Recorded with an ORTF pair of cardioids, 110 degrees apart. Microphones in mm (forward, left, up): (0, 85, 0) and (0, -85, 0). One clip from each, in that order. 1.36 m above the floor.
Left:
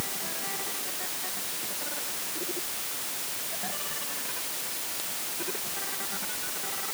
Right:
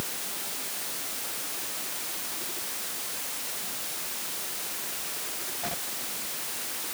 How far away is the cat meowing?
No cat meowing in this recording.